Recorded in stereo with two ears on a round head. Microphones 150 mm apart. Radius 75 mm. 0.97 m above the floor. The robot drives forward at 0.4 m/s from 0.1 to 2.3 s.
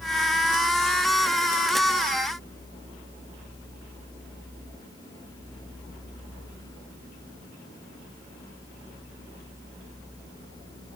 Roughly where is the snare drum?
I don't hear a snare drum.